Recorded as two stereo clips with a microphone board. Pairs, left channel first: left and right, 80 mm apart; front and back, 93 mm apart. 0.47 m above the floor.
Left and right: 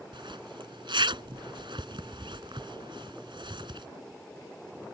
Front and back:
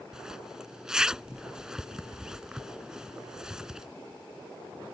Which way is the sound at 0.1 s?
95° right.